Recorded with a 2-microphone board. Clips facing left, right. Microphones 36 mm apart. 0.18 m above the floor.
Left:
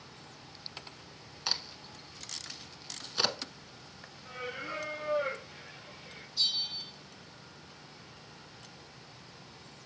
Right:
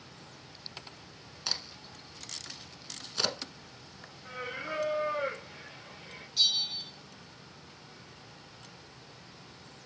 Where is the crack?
10° left (ahead or behind), 0.8 m.